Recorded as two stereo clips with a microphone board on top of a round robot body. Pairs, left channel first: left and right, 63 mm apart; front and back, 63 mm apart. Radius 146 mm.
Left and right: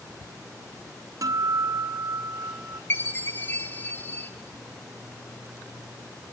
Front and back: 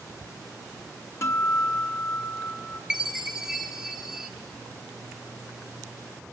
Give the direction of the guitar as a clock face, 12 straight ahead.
2 o'clock.